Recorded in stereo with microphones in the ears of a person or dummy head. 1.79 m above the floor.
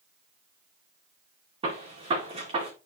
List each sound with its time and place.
1.6 s a gunshot: 30° right (ahead or behind), 2.5 m